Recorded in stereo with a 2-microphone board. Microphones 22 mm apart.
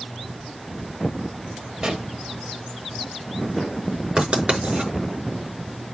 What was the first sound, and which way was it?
A pop, 55° right (ahead or behind).